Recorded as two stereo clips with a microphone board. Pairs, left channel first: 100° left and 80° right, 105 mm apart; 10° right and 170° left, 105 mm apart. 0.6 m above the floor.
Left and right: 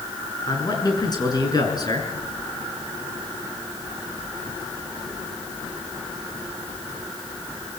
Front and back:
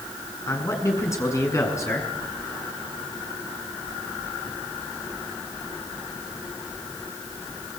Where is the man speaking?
50° left, 6.5 m.